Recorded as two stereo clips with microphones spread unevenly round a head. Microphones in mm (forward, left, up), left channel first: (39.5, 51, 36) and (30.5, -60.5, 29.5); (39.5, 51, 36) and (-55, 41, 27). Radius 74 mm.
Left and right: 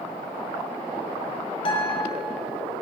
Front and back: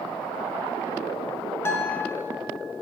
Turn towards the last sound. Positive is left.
turn(degrees=60)